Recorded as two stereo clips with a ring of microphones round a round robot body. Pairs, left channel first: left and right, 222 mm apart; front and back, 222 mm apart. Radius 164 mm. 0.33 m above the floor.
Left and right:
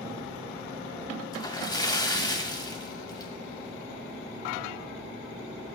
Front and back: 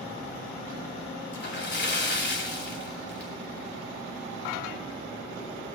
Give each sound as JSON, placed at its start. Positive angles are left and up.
{"t": 1.3, "sound": "a splash", "azimuth_deg": 20, "distance_m": 2.5}